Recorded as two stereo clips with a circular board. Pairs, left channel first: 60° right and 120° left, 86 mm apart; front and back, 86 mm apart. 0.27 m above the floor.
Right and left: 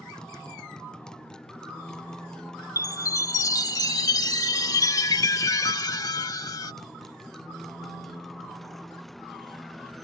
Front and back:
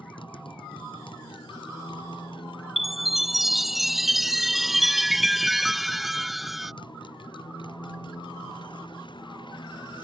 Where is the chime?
90° right.